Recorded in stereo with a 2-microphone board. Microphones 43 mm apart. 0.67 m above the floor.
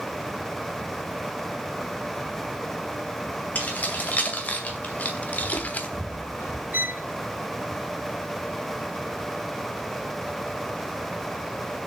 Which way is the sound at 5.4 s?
75° left (ahead or behind).